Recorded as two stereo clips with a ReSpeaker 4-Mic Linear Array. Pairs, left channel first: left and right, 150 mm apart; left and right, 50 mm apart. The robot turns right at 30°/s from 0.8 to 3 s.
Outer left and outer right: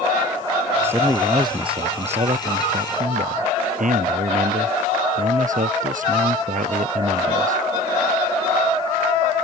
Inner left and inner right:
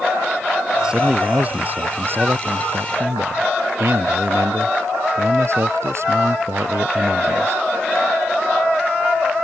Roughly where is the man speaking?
Behind.